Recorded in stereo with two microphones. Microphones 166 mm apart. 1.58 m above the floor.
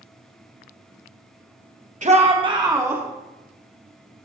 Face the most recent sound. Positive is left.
turn(degrees=-10)  # may be behind; listen again after turning